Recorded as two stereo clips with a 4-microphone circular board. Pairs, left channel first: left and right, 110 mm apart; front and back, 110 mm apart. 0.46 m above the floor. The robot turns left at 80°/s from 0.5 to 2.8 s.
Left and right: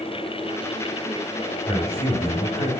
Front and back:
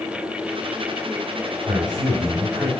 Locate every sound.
1.7 s a man speaking: 165° left, 2.5 m; by 2.7 s 80° left, 2.5 m